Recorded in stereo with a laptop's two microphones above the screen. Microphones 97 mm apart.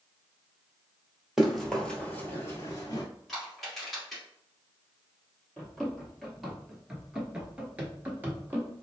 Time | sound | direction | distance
1.4 | running footsteps | 5° right (ahead or behind) | 1.2 m
3.3 | crushing | centre (ahead or behind) | 1.9 m
5.6 | running footsteps | 5° left (ahead or behind) | 1.5 m